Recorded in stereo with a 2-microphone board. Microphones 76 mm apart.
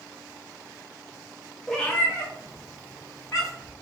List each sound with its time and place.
1.7 s a cat meowing: 5° left (ahead or behind), 0.7 m; by 3.7 s 45° left (ahead or behind), 2.5 m